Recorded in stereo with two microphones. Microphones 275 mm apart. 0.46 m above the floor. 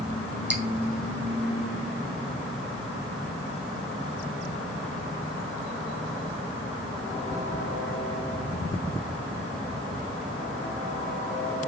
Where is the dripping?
45° right (ahead or behind), 1.9 m.